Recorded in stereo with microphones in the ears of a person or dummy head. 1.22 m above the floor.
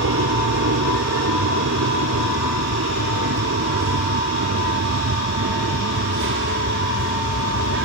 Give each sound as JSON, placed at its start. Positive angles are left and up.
{"t": 0.0, "sound": "an aircraft", "side_deg": -70}